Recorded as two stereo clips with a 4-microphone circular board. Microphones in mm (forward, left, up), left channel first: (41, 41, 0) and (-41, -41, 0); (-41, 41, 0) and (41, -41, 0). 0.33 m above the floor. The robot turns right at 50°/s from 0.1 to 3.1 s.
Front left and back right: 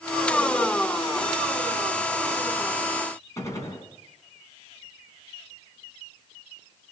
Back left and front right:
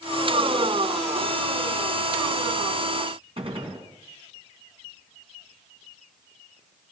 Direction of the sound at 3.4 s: 15° right.